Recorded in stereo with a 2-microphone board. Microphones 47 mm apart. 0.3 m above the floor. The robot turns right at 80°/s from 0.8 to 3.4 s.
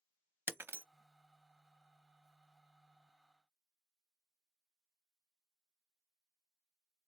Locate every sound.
0.5 s breaking glass: 55° right (ahead or behind), 0.7 m; by 0.8 s 50° right (ahead or behind), 0.7 m